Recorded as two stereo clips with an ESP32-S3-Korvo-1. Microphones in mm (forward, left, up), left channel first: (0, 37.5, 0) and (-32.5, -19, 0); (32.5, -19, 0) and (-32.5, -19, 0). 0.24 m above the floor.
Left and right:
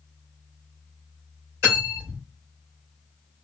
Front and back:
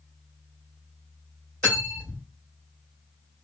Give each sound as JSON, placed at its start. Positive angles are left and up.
{"t": 1.6, "sound": "cutlery clinking", "azimuth_deg": -55, "distance_m": 2.0}